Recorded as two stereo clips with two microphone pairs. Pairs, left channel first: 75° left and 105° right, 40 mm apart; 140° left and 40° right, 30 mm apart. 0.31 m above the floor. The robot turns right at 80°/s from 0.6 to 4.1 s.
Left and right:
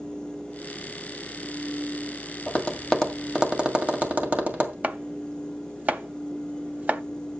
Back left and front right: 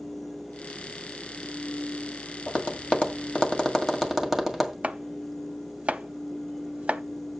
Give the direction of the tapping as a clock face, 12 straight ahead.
8 o'clock.